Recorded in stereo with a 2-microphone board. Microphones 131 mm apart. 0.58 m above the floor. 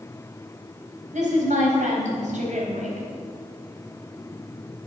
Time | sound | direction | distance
1.1 | a woman speaking | 70° right (ahead or behind) | 4 m